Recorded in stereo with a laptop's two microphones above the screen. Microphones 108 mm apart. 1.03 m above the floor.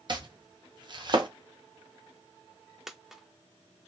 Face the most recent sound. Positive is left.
turn(degrees=-5)  # may be behind; listen again after turning